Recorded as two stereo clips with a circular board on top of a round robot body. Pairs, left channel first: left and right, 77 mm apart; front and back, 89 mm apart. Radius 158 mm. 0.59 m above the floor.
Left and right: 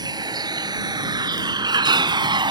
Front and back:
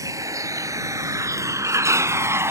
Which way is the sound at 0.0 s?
125° right.